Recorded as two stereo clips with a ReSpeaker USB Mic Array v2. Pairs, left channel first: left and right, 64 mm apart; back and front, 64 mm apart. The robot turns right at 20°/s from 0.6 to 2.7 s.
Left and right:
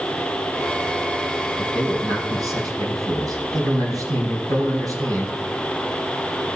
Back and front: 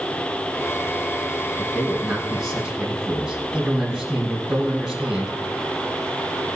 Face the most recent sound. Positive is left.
turn(degrees=-85)